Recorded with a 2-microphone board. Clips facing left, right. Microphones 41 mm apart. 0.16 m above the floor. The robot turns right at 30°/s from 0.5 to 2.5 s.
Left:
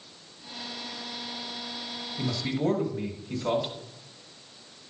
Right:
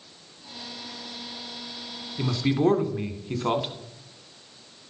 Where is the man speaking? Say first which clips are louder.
Right 6 dB; 35° right (ahead or behind), 1.3 m.